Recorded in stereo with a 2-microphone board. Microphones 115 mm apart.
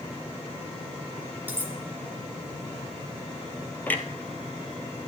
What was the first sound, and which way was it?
Cutlery clinking, 15° right (ahead or behind).